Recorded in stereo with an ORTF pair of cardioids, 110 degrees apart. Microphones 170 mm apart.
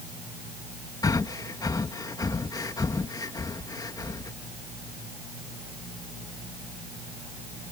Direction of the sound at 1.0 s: 20° left.